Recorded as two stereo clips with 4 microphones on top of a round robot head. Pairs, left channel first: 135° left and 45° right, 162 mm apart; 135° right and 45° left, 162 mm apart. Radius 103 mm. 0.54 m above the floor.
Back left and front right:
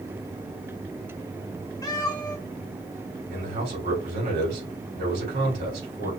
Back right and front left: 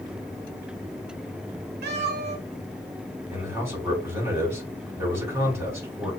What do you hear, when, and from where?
1.8 s a cat meowing: 70° left, 1.4 m
3.3 s a man speaking: 30° right, 4 m